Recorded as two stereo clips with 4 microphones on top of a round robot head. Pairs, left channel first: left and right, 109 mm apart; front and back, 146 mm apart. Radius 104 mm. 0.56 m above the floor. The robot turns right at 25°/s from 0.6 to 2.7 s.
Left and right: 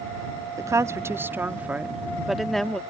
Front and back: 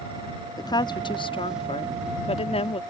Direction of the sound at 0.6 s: 45° right.